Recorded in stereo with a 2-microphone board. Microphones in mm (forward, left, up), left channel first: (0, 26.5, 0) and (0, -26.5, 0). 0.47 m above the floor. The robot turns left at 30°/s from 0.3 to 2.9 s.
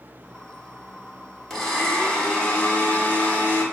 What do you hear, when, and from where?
1.5 s a blender: 175° left, 1.2 m; by 3.6 s 130° left, 1.2 m